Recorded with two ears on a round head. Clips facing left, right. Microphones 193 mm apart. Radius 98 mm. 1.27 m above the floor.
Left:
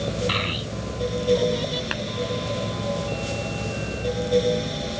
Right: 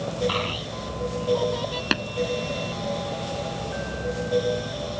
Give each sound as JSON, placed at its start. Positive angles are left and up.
{"t": 0.3, "sound": "a child speaking", "side_deg": 25}
{"t": 1.9, "sound": "tapping", "side_deg": -50}